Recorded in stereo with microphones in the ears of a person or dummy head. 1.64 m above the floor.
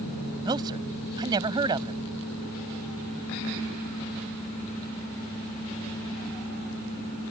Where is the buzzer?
I don't hear a buzzer.